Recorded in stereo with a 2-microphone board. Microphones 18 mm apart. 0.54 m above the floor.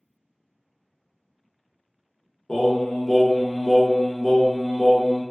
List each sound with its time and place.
2.5 s singing: 35° left (ahead or behind), 0.6 m